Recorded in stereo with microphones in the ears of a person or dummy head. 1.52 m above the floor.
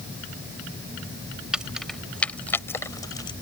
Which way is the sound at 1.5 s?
5° right (ahead or behind).